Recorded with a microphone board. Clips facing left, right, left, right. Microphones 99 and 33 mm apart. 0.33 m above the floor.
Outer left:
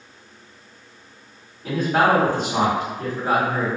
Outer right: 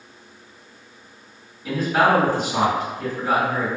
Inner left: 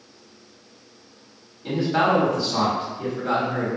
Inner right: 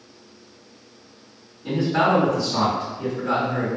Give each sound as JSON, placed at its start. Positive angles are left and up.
{"t": 1.6, "sound": "a man speaking", "side_deg": 55, "distance_m": 2.0}